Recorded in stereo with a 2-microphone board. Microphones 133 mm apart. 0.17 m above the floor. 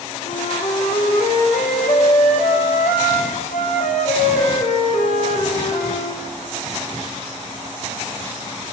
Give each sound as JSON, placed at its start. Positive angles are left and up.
{"t": 0.2, "sound": "a flute", "side_deg": 80, "distance_m": 8.0}